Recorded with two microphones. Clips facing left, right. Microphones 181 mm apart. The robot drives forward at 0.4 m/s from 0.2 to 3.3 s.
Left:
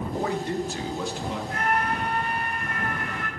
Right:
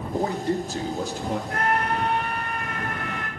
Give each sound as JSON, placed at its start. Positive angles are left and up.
{"t": 0.1, "sound": "a man speaking", "side_deg": -35, "distance_m": 1.6}
{"t": 1.5, "sound": "a scream", "side_deg": -60, "distance_m": 1.3}